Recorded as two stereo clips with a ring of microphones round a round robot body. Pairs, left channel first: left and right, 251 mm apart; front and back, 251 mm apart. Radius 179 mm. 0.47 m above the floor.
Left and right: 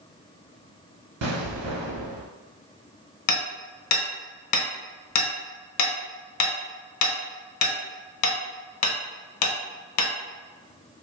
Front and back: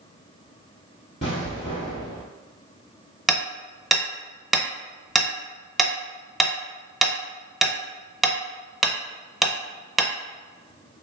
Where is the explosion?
70° right, 0.9 m.